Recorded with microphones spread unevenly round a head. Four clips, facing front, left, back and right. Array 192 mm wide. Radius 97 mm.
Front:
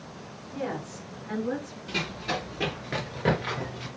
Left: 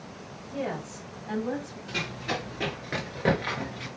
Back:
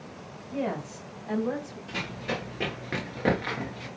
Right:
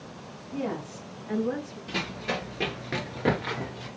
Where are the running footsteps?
95° right, 1.9 m; by 3.9 s 115° left, 1.8 m.